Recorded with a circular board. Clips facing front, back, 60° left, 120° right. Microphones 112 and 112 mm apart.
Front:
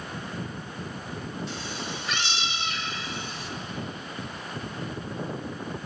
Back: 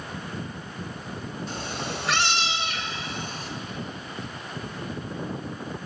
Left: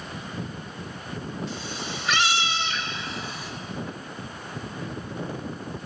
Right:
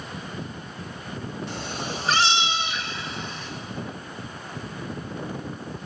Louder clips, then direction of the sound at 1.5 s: Back 3 dB, right 2 dB; 140° right.